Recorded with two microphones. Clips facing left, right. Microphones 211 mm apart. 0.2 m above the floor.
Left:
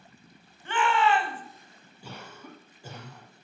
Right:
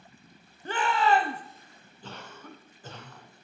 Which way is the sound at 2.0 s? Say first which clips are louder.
Even; 10° left (ahead or behind).